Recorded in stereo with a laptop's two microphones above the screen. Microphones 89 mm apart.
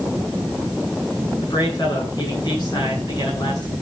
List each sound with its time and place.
1.4 s a man speaking: 50° left (ahead or behind), 8 m